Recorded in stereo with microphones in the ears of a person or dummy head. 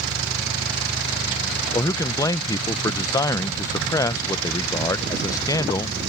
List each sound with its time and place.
1.7 s a man speaking: 20° left (ahead or behind)